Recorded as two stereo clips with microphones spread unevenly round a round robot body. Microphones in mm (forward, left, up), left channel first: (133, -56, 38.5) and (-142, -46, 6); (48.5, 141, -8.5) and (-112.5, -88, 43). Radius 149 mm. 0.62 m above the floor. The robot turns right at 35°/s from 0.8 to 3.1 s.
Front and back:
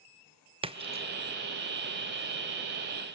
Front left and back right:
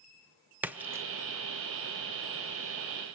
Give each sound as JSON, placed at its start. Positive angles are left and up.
{"t": 0.6, "sound": "a splash", "azimuth_deg": 140, "distance_m": 0.9}